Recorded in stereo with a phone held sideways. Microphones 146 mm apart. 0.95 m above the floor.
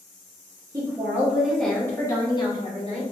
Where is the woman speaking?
25° right (ahead or behind), 0.9 m; by 3.0 s 45° left (ahead or behind), 1.1 m.